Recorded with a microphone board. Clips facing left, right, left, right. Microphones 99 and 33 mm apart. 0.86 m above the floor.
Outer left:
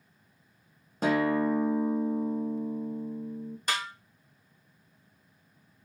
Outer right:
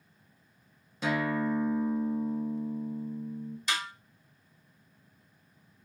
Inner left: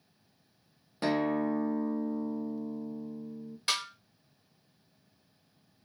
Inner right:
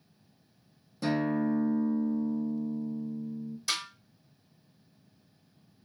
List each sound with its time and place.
1.0 s a guitar: 45° left (ahead or behind), 0.7 m
3.7 s a snare drum: 50° left (ahead or behind), 1.3 m